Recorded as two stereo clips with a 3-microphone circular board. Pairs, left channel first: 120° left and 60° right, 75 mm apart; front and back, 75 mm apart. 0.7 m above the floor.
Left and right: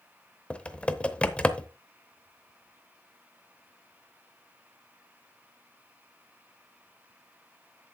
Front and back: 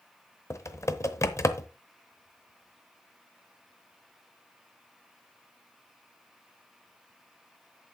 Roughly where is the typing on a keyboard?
Ahead left.